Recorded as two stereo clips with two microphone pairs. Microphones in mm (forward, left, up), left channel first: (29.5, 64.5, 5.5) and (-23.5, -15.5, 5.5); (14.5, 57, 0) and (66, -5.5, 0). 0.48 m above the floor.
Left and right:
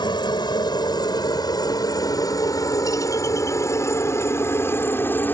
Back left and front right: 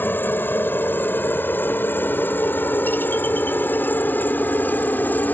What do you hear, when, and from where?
0.0 s a helicopter: 70° left; by 5.3 s 95° left